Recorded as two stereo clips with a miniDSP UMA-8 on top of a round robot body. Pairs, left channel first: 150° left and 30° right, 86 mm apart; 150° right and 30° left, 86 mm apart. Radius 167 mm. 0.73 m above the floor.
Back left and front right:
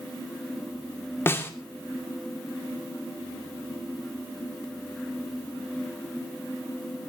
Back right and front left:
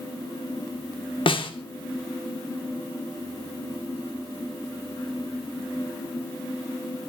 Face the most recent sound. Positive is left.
turn(degrees=-145)